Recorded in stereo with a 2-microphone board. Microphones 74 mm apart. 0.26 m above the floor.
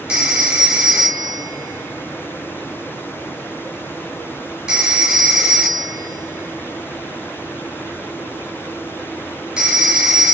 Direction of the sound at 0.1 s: 10° right (ahead or behind).